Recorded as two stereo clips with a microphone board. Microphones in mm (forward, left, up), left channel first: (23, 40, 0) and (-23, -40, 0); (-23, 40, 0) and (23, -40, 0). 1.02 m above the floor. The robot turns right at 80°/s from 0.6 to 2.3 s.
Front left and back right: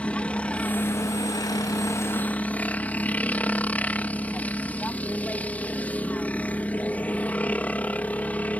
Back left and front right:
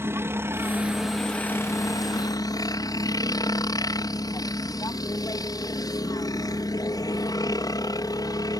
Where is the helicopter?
10° right; by 8.6 s 125° left.